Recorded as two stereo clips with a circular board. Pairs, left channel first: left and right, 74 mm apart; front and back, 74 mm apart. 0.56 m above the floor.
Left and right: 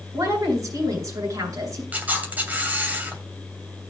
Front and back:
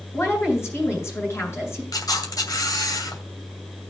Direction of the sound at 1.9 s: 25° right.